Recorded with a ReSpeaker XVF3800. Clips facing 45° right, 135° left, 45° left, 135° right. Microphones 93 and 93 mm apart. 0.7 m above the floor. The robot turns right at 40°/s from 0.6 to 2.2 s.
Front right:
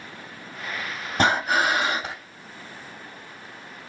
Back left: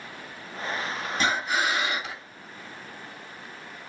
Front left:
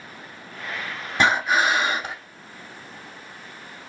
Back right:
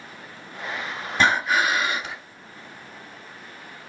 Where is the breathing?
30° right, 1.9 m; by 2.1 s 5° left, 1.9 m.